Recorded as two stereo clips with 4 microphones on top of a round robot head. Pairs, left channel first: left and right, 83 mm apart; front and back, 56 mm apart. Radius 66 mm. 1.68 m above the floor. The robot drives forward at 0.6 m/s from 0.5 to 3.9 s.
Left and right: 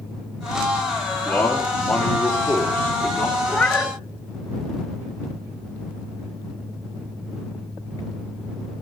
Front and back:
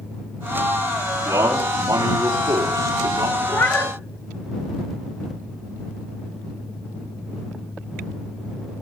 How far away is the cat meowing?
About 1.3 m.